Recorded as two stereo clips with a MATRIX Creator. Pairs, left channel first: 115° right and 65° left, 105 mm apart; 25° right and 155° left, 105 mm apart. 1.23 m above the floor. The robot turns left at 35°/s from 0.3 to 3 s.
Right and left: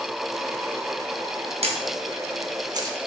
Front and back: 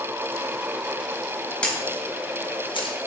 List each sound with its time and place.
1.6 s a camera shutter: 55° left, 1.3 m; by 3.0 s 10° left, 1.3 m